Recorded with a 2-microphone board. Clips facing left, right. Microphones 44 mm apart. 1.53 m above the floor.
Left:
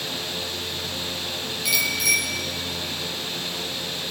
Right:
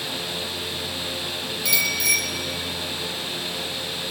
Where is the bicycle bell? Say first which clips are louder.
Even; 10° left (ahead or behind), 5.5 m.